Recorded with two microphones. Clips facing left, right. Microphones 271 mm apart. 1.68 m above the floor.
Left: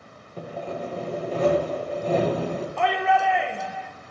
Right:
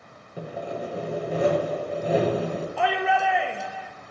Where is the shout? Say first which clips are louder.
Left 1 dB; 5° right (ahead or behind), 0.6 m.